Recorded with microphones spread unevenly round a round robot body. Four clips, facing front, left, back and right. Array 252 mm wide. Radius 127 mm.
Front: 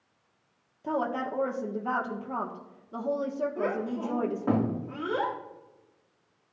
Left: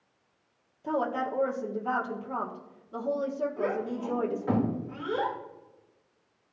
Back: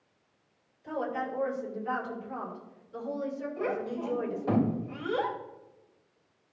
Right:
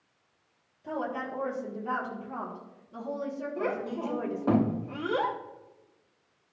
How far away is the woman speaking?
About 1.5 m.